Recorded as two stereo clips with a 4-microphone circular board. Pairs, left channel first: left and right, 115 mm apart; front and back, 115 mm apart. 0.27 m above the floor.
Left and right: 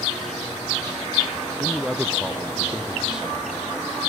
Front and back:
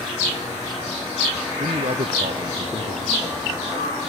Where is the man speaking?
175° right.